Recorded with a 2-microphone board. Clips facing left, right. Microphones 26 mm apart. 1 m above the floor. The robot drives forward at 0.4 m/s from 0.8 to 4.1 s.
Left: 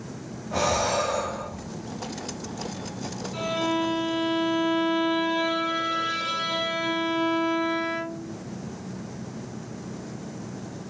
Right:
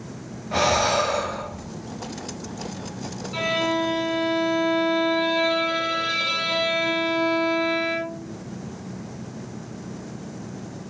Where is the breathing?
55° right (ahead or behind), 1.1 m; by 1.7 s 50° right (ahead or behind), 1.2 m.